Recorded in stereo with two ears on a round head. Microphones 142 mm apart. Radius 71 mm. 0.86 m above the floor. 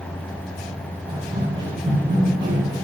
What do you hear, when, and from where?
1.1 s running footsteps: 35° right (ahead or behind), 7.5 m; by 2.9 s 30° right (ahead or behind), 7 m